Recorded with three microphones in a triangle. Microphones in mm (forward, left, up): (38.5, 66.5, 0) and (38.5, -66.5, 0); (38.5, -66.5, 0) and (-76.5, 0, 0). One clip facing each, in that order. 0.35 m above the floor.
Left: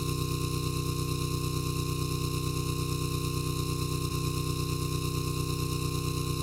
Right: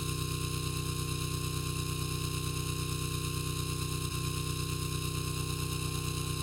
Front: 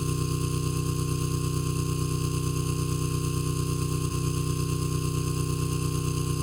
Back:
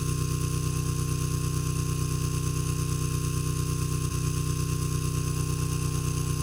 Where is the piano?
I don't hear a piano.